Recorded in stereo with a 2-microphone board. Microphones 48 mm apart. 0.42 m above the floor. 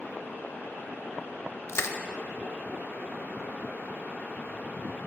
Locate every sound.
1.7 s crushing: 70° left (ahead or behind), 0.5 m